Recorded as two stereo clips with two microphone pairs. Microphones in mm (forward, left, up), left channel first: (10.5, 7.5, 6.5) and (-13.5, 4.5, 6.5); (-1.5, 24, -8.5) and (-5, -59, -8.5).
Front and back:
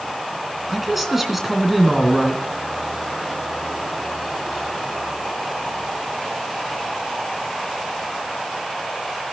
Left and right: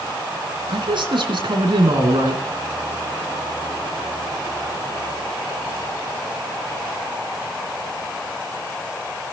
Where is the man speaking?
95° right, 3 m.